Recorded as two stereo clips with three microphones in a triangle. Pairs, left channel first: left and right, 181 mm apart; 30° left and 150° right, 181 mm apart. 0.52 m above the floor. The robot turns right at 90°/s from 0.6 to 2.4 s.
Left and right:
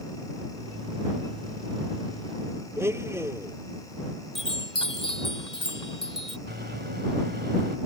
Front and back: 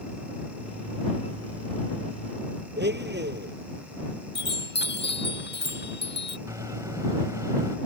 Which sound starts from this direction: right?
A microwave, at 6.5 s.